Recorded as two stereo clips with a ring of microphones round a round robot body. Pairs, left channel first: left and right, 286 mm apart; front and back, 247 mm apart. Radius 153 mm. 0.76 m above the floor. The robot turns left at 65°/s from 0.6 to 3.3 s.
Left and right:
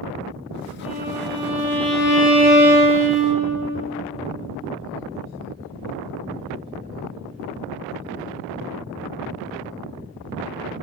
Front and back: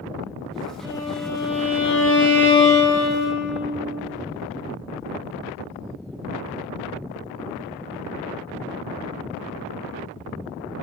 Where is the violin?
110° left, 2 m; by 3.5 s 50° right, 2 m.